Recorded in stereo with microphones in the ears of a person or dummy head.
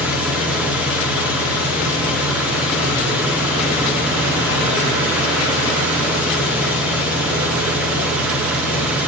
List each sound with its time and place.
0.0 s an engine running: 5° right (ahead or behind), 1.7 m